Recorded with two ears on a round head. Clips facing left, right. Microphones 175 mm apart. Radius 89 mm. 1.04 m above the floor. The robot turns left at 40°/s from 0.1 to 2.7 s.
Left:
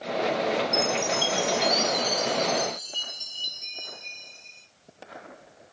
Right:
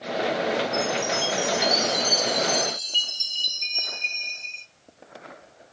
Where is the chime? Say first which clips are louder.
Right 1 dB; 40° left, 0.7 m; by 4.7 s 40° right, 0.7 m.